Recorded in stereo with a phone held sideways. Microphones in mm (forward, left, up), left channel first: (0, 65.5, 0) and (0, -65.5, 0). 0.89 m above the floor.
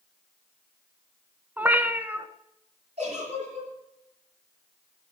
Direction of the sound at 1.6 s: 15° right (ahead or behind).